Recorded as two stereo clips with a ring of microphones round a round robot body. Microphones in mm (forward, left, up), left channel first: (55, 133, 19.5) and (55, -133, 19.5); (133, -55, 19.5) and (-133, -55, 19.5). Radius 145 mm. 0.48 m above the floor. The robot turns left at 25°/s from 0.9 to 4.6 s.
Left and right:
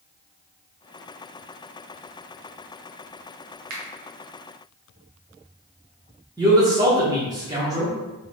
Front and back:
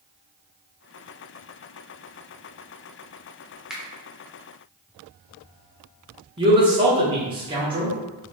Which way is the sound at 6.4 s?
145° right.